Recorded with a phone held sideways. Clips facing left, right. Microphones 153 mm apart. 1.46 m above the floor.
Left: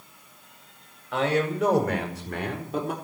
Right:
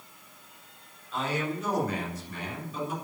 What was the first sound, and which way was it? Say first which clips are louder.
A man speaking: left 7 dB; 75° left (ahead or behind).